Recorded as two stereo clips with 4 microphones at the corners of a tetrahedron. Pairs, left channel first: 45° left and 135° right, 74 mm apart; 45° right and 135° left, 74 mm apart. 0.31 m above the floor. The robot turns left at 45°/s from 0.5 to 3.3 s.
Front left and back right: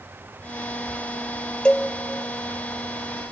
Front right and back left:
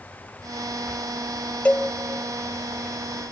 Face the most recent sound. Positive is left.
turn(degrees=-85)